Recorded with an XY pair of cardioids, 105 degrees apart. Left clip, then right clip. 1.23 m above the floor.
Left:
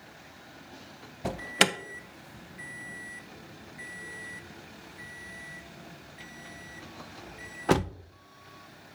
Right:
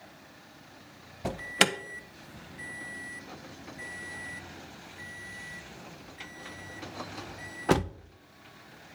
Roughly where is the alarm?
Ahead.